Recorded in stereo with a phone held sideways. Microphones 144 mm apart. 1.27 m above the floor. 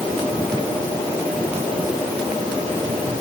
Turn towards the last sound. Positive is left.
No sound to turn to.